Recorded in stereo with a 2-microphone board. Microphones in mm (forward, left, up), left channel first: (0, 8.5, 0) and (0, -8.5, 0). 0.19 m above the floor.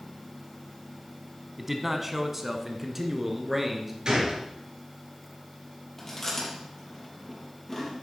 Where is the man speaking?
10° right (ahead or behind), 1.1 m; by 4.0 s 15° right (ahead or behind), 2.5 m.